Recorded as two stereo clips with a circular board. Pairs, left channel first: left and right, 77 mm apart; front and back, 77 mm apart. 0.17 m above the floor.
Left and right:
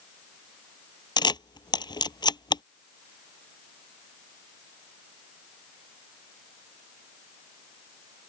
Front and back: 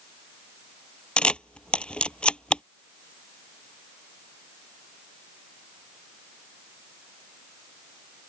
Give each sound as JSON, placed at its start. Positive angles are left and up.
{"t": 1.2, "sound": "a camera shutter", "azimuth_deg": 75}